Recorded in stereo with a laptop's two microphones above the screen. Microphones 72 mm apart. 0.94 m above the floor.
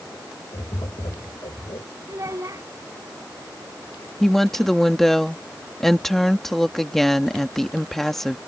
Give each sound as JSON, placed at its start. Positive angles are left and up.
{"t": 0.5, "sound": "tapping", "side_deg": 80}
{"t": 2.1, "sound": "a child speaking", "side_deg": -40}
{"t": 4.2, "sound": "a woman speaking", "side_deg": 0}